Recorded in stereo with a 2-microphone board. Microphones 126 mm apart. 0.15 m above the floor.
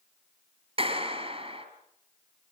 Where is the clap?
50° right (ahead or behind), 2.5 m.